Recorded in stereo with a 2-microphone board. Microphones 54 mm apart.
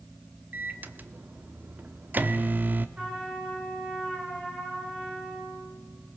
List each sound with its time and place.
0.5 s a microwave: 40° right (ahead or behind), 0.8 m
3.0 s a trumpet: 20° right (ahead or behind), 7 m